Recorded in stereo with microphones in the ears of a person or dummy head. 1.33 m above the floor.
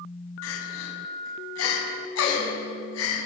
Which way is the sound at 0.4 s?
85° left.